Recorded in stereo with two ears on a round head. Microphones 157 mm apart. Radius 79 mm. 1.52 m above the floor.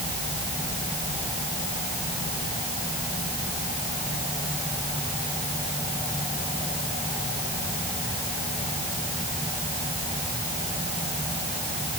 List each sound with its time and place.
Only background noise.